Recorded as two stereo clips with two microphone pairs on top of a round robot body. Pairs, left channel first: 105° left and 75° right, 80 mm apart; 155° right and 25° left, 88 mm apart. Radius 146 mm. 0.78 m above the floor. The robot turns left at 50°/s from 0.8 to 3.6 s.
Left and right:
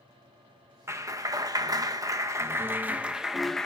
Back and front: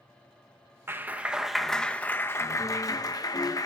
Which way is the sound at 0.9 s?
35° right.